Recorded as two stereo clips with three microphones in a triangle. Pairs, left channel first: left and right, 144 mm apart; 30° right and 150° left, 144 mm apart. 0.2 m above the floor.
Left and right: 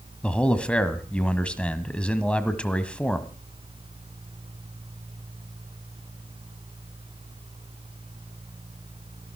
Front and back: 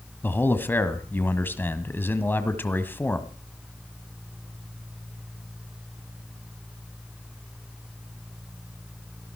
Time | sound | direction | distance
0.2 | a man speaking | 20° left | 1.5 m